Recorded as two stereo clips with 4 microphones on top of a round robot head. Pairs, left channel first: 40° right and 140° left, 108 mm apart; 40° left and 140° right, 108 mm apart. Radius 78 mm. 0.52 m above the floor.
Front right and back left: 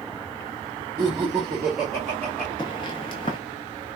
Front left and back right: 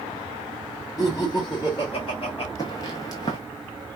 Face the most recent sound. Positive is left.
turn(degrees=-5)